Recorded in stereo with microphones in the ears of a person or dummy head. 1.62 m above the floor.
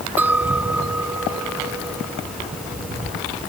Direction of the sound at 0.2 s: 10° right (ahead or behind).